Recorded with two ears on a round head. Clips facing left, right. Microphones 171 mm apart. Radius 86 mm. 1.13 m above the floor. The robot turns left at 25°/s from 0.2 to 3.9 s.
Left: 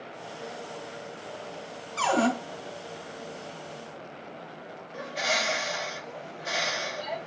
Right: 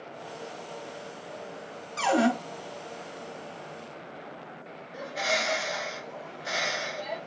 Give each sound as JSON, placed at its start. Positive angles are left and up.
{"t": 2.0, "sound": "a cupboard door", "side_deg": -20, "distance_m": 1.3}
{"t": 4.9, "sound": "a bird", "side_deg": -5, "distance_m": 1.1}